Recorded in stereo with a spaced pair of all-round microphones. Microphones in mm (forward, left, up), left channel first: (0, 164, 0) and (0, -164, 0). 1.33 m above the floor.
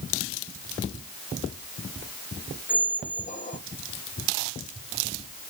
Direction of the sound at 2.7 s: 25° left (ahead or behind).